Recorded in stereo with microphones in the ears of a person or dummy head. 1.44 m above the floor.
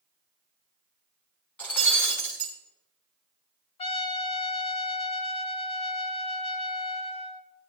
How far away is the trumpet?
About 1.0 m.